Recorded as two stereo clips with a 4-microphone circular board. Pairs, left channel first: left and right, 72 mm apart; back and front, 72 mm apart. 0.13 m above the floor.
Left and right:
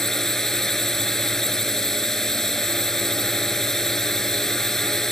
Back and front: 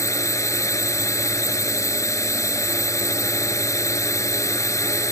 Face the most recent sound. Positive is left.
turn(degrees=170)